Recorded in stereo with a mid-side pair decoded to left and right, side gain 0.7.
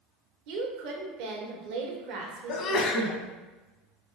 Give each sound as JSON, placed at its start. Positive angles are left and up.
{"t": 0.5, "sound": "a woman speaking", "azimuth_deg": -65, "distance_m": 0.9}
{"t": 2.5, "sound": "a sneeze", "azimuth_deg": 50, "distance_m": 0.8}